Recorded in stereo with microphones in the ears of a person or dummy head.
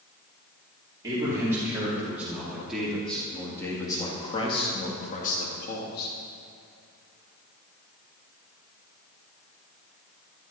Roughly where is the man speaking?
Right.